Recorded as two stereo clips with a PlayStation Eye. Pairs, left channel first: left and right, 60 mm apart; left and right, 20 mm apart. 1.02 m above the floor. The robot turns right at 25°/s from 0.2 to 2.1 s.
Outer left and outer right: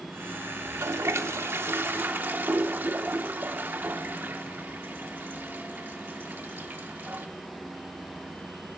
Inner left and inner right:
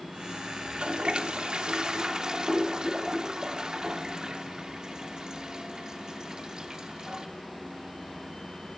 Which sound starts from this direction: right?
A toilet flushing, at 0.6 s.